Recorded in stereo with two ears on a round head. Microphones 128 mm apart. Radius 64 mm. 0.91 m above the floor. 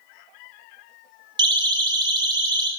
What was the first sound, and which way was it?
A siren, 30° right (ahead or behind).